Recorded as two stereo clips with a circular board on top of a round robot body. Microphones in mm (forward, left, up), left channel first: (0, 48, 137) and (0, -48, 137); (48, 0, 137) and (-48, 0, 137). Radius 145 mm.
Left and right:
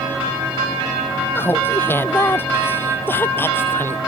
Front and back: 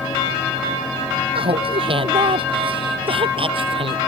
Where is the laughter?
155° left.